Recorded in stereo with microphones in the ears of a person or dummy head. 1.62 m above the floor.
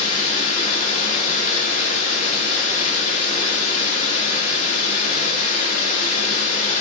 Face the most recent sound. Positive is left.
turn(degrees=45)  # may be behind; listen again after turning